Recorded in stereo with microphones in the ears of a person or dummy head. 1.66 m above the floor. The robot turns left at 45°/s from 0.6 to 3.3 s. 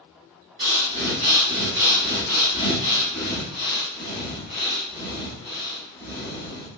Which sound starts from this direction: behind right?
Breathing, at 0.6 s.